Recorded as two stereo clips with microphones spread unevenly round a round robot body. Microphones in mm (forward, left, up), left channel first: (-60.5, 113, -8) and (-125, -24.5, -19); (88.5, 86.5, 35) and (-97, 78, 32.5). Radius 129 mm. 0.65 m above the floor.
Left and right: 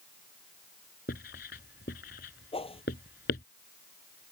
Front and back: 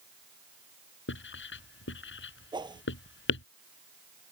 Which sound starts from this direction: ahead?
Writing, at 1.1 s.